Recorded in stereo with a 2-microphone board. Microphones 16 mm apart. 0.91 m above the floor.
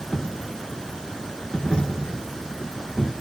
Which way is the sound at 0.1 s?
80° left.